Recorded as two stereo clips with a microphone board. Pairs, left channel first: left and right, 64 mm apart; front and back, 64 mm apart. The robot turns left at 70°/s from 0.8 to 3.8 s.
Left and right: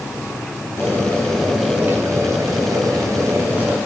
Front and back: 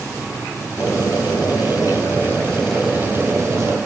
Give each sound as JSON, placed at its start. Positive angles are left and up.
{"t": 0.8, "sound": "boiling", "azimuth_deg": 45, "distance_m": 3.5}